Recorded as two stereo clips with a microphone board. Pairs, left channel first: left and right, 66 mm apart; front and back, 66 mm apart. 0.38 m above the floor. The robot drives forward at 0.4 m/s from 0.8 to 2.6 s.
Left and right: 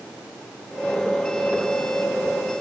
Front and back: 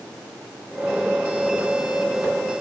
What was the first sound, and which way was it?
Only background noise.